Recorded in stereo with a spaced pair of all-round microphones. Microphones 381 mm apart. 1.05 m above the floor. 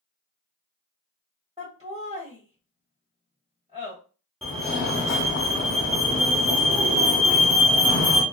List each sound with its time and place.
1.6 s laughter: 10° right (ahead or behind), 1.1 m
4.4 s a fire alarm: centre (ahead or behind), 1.2 m